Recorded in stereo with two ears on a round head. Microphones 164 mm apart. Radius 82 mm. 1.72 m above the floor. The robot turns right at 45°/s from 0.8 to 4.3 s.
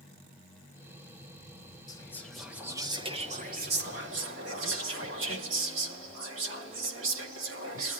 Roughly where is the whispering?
Behind.